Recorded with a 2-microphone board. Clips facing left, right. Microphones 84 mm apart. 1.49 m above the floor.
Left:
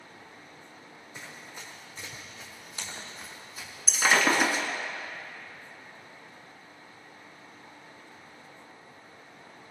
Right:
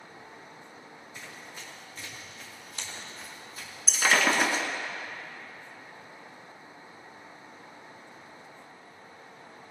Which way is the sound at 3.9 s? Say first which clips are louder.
Left 1 dB; 5° left (ahead or behind).